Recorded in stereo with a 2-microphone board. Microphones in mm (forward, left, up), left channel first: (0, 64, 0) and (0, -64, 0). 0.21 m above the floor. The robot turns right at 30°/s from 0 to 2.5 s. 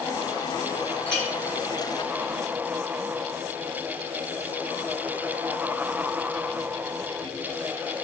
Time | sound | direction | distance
1.1 | a clink | 10° left (ahead or behind) | 2.5 m